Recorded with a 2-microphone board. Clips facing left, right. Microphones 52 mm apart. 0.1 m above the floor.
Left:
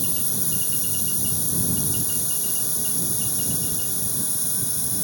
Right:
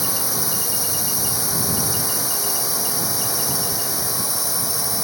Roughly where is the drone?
Right.